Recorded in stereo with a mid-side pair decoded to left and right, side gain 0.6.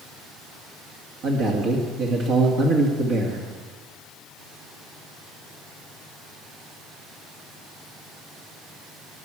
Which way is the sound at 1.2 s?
55° right.